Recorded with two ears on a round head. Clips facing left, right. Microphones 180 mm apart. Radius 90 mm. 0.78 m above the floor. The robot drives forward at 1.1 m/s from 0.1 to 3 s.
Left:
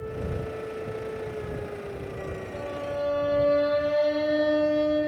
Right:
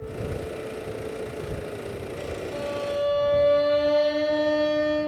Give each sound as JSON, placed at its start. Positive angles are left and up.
{"t": 2.5, "sound": "a violin", "side_deg": -65, "distance_m": 0.9}